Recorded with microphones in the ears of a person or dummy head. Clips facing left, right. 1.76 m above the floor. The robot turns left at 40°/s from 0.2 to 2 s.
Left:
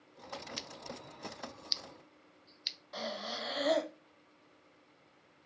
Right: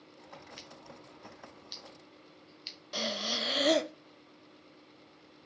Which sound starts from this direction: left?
Scissors, at 0.6 s.